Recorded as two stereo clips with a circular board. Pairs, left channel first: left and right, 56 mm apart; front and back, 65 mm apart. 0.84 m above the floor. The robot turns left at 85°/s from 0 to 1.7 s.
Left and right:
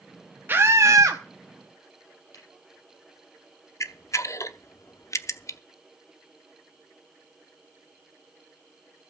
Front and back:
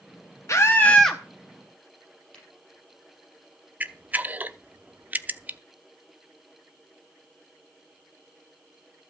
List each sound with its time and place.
0.5 s a scream: 40° right, 1.0 m; by 1.2 s 100° right, 1.0 m
2.3 s a camera shutter: 70° left, 6 m
3.8 s a camera shutter: 115° left, 0.6 m